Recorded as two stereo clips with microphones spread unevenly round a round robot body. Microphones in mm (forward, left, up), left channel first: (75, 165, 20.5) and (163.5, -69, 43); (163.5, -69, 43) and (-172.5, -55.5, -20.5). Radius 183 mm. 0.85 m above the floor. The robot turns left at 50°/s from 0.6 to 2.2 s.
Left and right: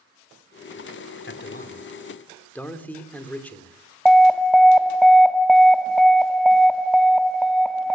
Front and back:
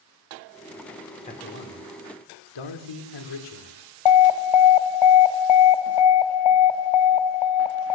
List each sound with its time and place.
1.2 s a man speaking: 75° left, 2.5 m; by 3.8 s 25° left, 2.5 m
4.0 s an alarm: 20° left, 0.9 m